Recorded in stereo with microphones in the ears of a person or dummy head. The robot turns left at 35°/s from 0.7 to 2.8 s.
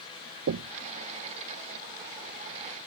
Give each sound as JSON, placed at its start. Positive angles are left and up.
{"t": 0.5, "sound": "knocking", "side_deg": -60}